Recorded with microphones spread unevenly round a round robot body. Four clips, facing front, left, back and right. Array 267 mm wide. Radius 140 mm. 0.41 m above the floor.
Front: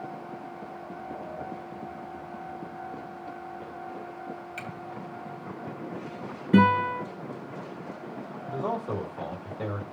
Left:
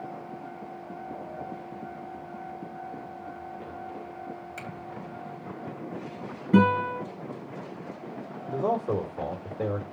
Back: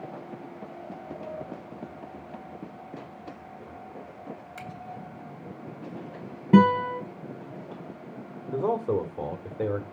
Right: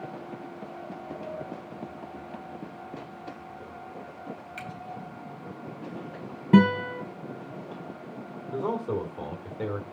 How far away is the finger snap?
About 1.6 m.